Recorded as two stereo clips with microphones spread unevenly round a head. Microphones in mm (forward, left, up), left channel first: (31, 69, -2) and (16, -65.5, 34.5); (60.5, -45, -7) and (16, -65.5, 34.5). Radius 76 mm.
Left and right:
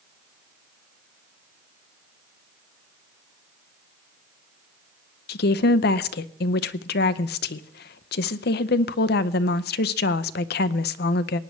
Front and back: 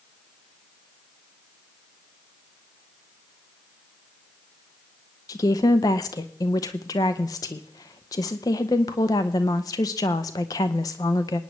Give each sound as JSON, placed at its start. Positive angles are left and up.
{"t": 5.3, "sound": "a woman speaking", "azimuth_deg": 75, "distance_m": 0.6}